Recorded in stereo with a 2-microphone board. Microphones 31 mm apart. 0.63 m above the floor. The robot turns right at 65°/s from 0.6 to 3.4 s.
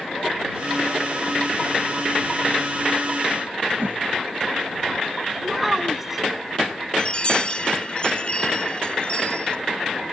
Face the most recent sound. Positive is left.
turn(degrees=35)  # may be behind; listen again after turning